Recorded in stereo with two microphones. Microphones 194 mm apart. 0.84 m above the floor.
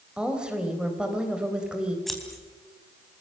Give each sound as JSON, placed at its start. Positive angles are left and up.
{"t": 0.2, "sound": "a woman speaking", "side_deg": -5, "distance_m": 3.5}
{"t": 2.1, "sound": "scissors", "side_deg": 0, "distance_m": 4.0}